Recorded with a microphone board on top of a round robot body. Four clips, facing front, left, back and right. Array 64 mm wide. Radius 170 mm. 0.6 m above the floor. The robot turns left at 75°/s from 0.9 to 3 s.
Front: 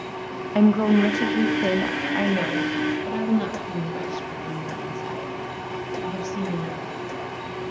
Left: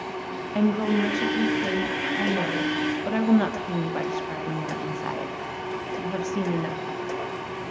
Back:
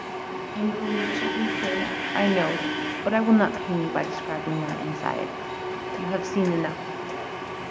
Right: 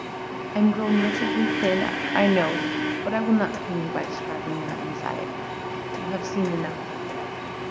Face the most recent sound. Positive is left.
turn(degrees=-165)